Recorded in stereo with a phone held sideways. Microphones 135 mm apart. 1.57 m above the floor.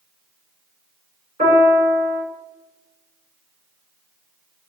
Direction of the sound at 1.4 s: 80° right.